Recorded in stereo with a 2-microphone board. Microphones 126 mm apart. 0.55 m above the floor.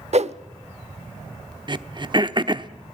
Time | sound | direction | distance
0.1 | a whoosh | 60° right (ahead or behind) | 0.9 m
1.7 | throat clearing | 40° right (ahead or behind) | 0.9 m